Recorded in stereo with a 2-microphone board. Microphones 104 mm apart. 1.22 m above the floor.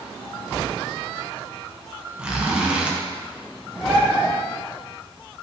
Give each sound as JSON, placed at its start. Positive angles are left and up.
{"t": 2.2, "sound": "a zipper", "side_deg": -10, "distance_m": 0.6}
{"t": 3.8, "sound": "a bird", "side_deg": -5, "distance_m": 0.9}